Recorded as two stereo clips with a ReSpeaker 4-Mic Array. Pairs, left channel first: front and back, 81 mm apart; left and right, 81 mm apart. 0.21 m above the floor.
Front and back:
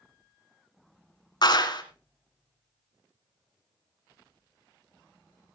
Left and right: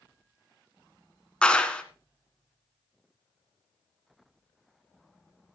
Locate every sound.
1.4 s a clap: 15° left, 1.7 m